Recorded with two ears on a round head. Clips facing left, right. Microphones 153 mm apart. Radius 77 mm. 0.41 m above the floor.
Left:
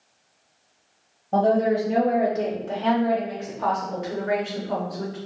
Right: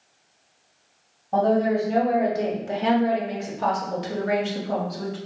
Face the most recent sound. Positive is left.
turn(degrees=-45)  # may be behind; listen again after turning